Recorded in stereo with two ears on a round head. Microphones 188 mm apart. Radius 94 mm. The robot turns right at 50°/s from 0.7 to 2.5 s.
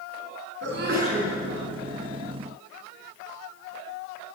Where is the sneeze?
55° right (ahead or behind), 9 m; by 1.3 s 25° right (ahead or behind), 9 m.